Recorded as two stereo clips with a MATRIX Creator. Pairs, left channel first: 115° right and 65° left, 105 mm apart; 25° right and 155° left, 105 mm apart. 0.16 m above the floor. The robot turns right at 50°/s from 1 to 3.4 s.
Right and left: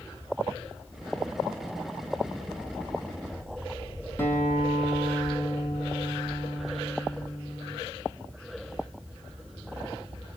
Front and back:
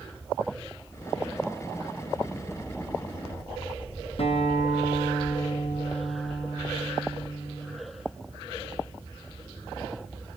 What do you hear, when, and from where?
4.2 s a guitar: 45° right, 4.5 m